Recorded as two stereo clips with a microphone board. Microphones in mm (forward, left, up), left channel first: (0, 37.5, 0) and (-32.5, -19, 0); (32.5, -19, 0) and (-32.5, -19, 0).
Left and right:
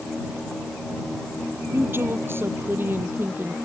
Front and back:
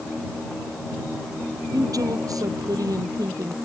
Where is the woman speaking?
170° right; by 3.5 s 175° right.